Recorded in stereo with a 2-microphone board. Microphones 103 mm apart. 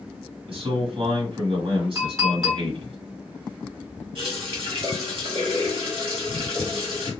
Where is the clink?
35° right (ahead or behind), 1.4 m.